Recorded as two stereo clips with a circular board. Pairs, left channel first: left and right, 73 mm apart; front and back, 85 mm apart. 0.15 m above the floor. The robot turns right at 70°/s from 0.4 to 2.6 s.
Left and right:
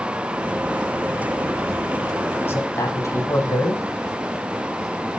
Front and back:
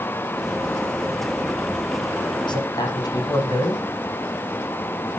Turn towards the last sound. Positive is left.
turn(degrees=40)